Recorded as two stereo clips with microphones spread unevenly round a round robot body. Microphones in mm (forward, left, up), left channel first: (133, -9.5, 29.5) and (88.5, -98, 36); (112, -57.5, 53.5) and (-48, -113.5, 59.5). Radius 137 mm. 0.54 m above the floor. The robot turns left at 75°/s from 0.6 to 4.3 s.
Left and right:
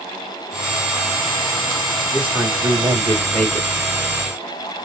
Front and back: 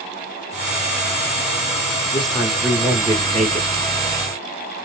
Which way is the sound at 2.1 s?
30° right.